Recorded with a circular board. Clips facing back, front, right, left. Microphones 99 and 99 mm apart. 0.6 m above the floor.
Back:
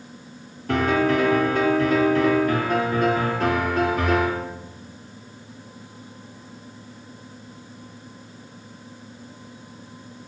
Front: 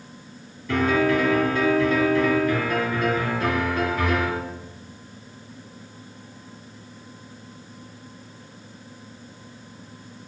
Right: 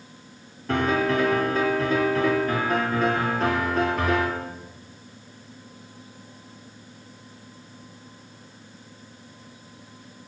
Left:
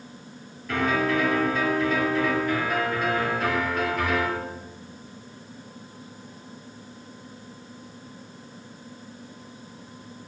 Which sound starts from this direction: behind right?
A piano, at 0.7 s.